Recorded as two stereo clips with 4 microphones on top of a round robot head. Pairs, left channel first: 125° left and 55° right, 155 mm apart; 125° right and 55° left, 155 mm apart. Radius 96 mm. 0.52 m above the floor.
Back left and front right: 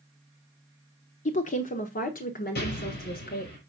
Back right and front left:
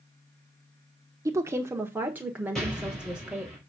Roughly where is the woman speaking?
Behind left.